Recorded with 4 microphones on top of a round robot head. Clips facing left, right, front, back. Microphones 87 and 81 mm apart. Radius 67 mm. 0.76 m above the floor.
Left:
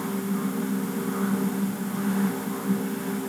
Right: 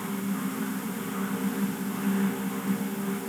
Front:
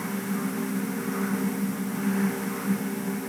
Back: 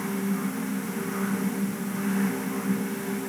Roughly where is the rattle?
I don't hear a rattle.